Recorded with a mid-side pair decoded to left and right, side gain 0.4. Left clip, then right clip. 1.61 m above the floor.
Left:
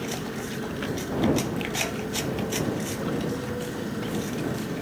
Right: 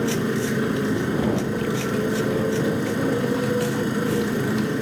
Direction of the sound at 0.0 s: 65° right.